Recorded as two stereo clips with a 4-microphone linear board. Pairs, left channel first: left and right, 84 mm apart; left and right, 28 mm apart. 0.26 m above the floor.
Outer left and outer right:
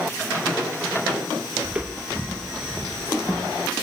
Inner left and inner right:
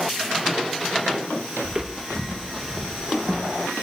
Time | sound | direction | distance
1.6 | footsteps | 15° right (ahead or behind) | 2.5 m